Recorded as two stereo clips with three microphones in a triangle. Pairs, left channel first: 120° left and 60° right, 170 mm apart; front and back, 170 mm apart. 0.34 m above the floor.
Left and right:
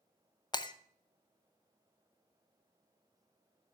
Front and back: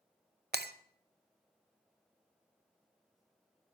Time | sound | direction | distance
0.5 | breaking glass | straight behind | 0.6 m